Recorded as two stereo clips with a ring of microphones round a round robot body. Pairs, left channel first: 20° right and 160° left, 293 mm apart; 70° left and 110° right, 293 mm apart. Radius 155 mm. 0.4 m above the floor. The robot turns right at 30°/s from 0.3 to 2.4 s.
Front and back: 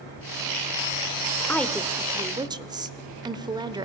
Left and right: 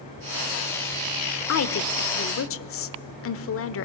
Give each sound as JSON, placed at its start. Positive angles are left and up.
{"t": 1.5, "sound": "a woman speaking", "azimuth_deg": 60, "distance_m": 1.1}